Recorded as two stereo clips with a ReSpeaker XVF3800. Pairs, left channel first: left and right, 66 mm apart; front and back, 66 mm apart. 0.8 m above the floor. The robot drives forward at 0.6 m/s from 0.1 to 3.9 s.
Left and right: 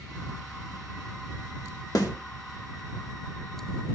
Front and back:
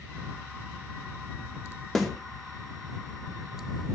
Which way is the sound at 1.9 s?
85° left.